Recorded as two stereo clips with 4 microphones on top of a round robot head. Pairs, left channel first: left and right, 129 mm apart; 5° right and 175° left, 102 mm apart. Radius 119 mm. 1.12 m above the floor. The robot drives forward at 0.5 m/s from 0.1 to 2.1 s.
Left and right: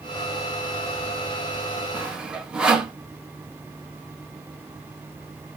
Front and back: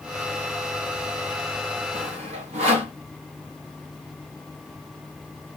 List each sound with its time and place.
1.9 s sawing: 170° right, 0.6 m